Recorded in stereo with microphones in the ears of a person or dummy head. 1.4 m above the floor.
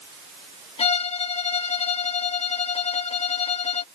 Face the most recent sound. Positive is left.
turn(degrees=30)  # may be behind; listen again after turning